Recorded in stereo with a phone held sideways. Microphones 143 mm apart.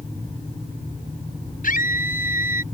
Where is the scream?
75° left (ahead or behind).